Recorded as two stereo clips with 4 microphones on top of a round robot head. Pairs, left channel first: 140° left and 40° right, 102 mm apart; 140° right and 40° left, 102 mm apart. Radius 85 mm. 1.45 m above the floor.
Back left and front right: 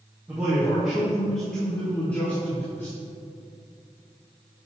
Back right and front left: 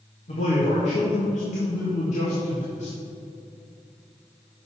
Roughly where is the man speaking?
Behind right.